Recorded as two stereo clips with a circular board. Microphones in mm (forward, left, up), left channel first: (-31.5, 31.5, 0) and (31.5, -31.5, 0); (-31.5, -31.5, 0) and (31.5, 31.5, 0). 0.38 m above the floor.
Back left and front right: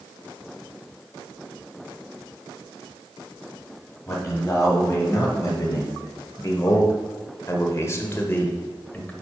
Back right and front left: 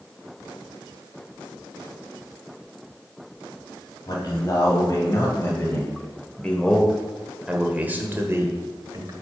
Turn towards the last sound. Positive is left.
turn(degrees=70)